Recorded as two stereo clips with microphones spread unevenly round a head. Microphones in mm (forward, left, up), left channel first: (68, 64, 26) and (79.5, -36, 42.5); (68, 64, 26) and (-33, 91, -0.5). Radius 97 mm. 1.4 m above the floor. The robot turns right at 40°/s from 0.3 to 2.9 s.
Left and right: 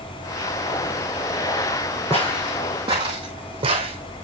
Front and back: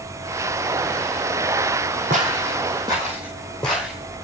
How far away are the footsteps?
About 2.5 m.